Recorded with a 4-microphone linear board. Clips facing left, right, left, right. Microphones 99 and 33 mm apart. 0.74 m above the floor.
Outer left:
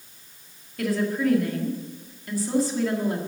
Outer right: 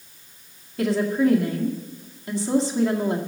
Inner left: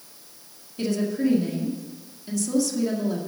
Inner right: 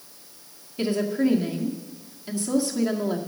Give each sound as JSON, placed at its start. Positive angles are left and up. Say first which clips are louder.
{"t": 0.8, "sound": "a woman speaking", "louder": "outer right 4 dB, inner right 1 dB", "side_deg": -25, "distance_m": 1.8}